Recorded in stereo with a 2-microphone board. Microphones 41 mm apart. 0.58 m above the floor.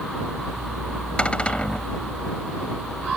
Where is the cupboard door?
25° left (ahead or behind).